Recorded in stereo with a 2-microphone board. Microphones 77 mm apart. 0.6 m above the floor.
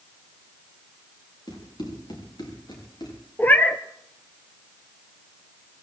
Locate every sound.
1.5 s running footsteps: 70° left (ahead or behind), 6.5 m; by 3.2 s 65° left (ahead or behind), 5.5 m
3.4 s a cat meowing: 25° left (ahead or behind), 0.9 m